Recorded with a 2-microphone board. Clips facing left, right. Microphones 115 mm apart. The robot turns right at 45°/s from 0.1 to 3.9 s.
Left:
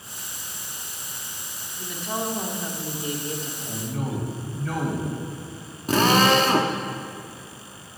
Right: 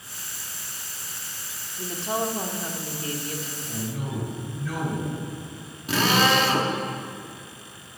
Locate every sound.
1.8 s a woman speaking: 40° right, 1.6 m; by 3.5 s 40° left, 1.6 m
3.6 s a man speaking: 70° left (ahead or behind), 4 m; by 5.2 s 55° left (ahead or behind), 4 m
5.9 s a drill: 40° left (ahead or behind), 1.2 m